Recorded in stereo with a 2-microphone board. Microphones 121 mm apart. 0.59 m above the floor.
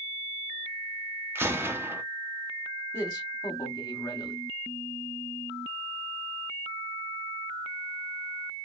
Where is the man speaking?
30° left (ahead or behind), 1.1 m.